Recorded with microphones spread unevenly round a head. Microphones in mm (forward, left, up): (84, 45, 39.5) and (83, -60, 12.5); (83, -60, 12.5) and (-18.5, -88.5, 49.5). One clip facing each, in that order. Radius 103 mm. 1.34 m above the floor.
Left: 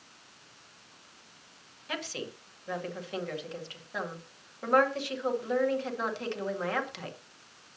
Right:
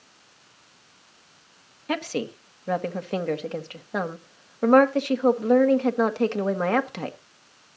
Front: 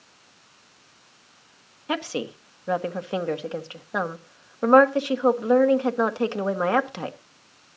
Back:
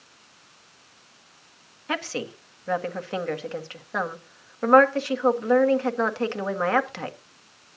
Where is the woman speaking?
55° right, 1.8 m.